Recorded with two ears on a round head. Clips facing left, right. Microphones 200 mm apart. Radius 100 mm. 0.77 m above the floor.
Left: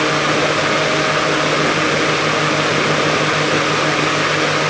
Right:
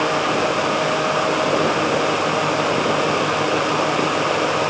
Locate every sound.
Only background noise.